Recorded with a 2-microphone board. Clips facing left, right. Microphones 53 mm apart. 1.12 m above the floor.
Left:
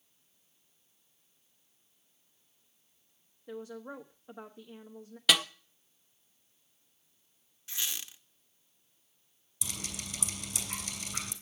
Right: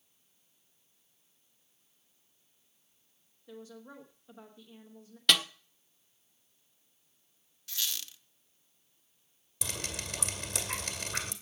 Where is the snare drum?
5° left (ahead or behind), 0.7 m.